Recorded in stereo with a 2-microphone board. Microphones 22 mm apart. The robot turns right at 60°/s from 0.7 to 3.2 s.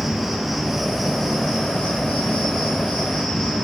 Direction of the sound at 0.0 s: 15° right.